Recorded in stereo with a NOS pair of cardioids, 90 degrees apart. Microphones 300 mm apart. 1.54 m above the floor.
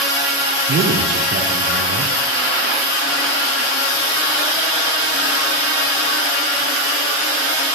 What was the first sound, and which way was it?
A man speaking, 45° right.